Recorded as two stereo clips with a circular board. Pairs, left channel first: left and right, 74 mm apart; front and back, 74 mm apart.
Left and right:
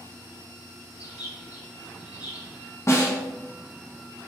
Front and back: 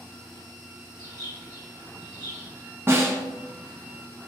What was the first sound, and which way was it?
A bird, 155° right.